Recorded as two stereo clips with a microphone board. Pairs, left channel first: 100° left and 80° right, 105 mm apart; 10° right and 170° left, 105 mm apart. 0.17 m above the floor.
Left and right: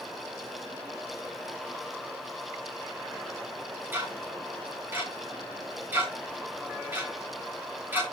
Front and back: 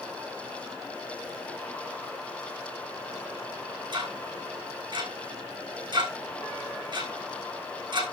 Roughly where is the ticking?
Behind right.